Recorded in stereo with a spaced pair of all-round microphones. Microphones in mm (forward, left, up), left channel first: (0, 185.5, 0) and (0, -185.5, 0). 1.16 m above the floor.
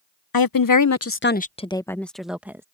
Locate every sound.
0.3 s a woman speaking: 70° left (ahead or behind); by 2.6 s 5° right (ahead or behind)